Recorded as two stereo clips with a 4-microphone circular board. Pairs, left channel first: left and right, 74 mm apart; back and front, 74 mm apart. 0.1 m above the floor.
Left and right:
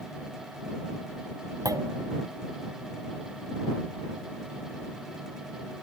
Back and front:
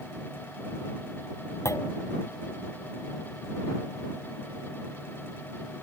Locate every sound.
1.6 s a clunk: 130° right